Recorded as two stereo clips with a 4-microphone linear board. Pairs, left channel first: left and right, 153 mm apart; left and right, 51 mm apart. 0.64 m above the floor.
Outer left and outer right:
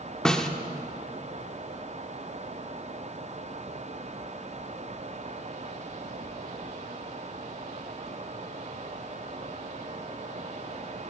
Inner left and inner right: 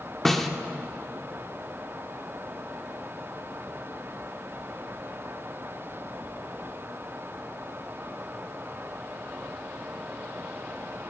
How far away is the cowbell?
I don't hear a cowbell.